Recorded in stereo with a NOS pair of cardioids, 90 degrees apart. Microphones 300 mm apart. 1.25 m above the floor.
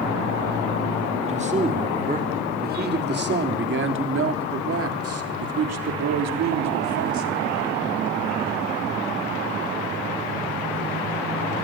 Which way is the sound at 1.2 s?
20° right.